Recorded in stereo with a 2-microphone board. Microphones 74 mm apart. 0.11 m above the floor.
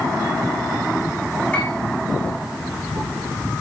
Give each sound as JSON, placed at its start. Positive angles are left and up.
{"t": 1.5, "sound": "a piano", "side_deg": 15, "distance_m": 7.0}